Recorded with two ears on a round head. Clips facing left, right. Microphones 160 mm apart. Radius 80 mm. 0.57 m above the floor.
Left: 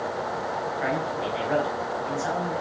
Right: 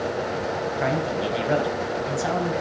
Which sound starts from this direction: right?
A man speaking, at 0.8 s.